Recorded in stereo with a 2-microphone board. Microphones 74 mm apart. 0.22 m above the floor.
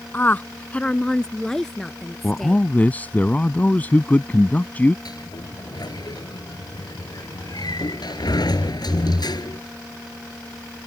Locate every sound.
0.1 s a woman speaking: 30° left (ahead or behind); by 2.6 s centre (ahead or behind)
2.2 s a man speaking: 25° left (ahead or behind)
5.0 s a sliding door: 70° left (ahead or behind)